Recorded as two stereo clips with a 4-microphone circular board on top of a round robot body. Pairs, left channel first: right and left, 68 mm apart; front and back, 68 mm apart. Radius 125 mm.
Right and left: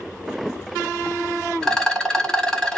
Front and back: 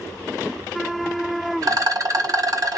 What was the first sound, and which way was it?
A rattle, 170° right.